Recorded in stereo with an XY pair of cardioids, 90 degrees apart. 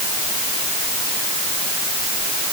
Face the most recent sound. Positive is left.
No sound to turn to.